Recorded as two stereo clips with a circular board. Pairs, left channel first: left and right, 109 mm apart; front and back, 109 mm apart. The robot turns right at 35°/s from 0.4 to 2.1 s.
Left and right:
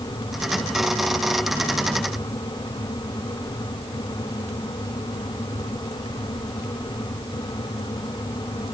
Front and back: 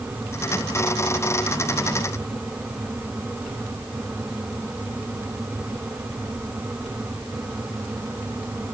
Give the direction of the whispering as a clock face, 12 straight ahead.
No whispering in this recording.